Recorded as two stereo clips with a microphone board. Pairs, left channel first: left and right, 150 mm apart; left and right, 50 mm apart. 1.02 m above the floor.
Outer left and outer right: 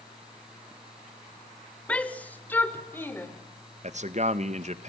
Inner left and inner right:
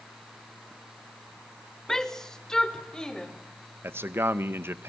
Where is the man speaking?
50° right (ahead or behind), 1.1 m.